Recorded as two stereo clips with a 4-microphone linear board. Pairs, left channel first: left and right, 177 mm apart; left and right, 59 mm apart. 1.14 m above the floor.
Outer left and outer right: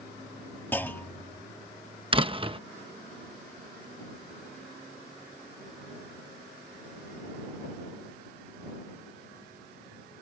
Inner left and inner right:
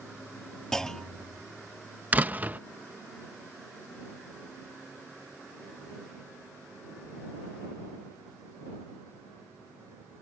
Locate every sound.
0.7 s a clunk: 10° left (ahead or behind)
2.1 s a door slam: 30° right (ahead or behind)